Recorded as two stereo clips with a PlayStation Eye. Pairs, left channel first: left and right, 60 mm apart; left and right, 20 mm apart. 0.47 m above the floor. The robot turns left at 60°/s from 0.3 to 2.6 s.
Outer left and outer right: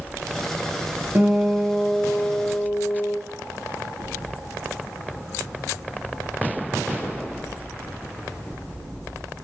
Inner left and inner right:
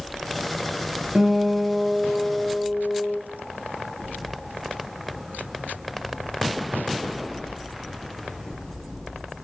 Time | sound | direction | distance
1.1 | a guitar | 140° right | 0.9 m